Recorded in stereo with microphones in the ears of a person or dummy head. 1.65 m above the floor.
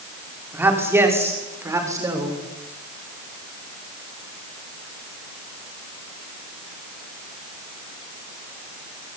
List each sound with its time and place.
0.5 s a man speaking: 10° right (ahead or behind), 6 m; by 2.4 s 20° right (ahead or behind), 7.5 m